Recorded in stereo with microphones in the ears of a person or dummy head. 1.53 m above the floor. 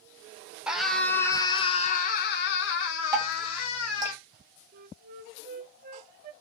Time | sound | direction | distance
0.7 | a scream | 5° right (ahead or behind) | 1.2 m
3.1 | dripping | 20° right (ahead or behind) | 1.6 m
4.7 | a flute | 50° right (ahead or behind) | 0.6 m